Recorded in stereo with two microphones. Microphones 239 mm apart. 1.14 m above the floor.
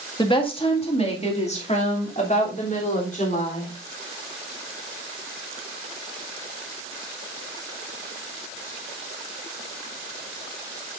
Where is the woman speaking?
20° left (ahead or behind), 1.8 m; by 3.7 s 35° left (ahead or behind), 4 m.